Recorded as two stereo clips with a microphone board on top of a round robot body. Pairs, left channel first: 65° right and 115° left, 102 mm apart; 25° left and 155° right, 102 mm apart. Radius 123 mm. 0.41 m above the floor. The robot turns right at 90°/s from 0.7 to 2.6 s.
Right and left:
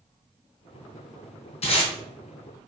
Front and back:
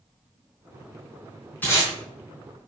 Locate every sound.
1.6 s tape being pulled: 50° right, 4 m; by 1.9 s 25° right, 4 m